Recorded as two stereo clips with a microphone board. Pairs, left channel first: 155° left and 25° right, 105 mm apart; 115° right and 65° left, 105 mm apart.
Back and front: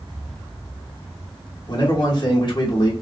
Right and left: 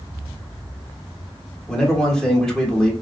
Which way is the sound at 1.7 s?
165° left.